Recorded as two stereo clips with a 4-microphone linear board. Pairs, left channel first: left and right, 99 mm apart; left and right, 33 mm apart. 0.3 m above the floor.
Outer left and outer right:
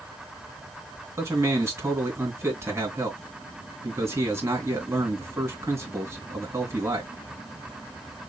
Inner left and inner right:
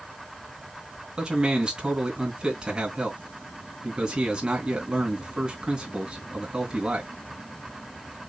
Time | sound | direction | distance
1.2 | a man speaking | 30° right (ahead or behind) | 3 m